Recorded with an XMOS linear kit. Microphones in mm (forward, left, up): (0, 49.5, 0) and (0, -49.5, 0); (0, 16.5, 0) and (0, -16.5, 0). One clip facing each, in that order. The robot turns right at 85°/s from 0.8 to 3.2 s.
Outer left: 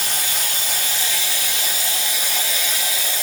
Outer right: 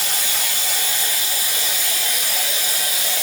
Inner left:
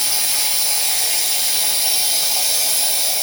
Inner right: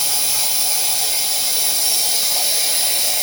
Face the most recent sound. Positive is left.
turn(degrees=-100)